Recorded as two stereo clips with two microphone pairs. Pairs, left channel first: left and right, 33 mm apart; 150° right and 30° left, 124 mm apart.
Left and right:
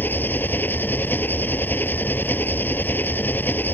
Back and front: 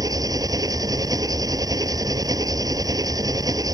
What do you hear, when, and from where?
0.0 s an engine running: 90° left